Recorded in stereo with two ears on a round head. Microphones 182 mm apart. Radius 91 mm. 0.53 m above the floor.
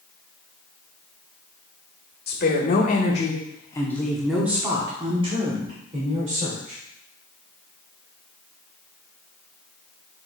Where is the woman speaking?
50° left (ahead or behind), 1.7 m; by 6.8 s 45° right (ahead or behind), 2.5 m.